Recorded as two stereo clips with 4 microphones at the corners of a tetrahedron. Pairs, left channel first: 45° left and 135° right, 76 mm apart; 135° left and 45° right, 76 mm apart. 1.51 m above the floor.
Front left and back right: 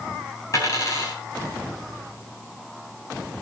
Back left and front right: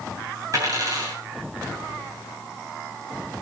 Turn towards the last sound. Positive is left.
turn(degrees=0)